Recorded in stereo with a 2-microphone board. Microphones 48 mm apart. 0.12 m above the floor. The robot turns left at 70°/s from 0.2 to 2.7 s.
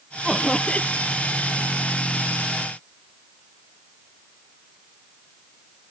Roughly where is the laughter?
Behind.